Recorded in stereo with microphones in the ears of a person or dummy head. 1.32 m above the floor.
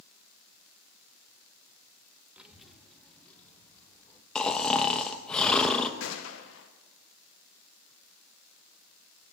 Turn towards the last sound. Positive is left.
turn(degrees=65)  # may be behind; listen again after turning